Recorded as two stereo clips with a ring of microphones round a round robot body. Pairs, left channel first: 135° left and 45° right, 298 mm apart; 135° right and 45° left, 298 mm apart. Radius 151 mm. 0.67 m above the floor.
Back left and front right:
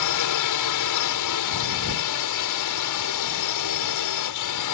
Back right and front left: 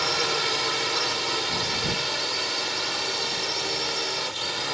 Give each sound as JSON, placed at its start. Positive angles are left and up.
{"t": 0.0, "sound": "a drone", "azimuth_deg": 135}